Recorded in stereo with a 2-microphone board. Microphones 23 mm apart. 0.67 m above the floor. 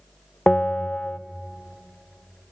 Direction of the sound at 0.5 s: 55° left (ahead or behind).